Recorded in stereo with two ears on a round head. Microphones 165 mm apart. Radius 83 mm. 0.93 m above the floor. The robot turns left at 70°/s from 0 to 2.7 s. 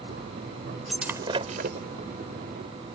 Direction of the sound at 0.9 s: 5° left (ahead or behind).